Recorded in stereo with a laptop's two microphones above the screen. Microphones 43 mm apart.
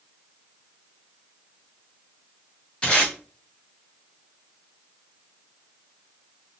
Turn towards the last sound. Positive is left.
turn(degrees=25)  # may be behind; listen again after turning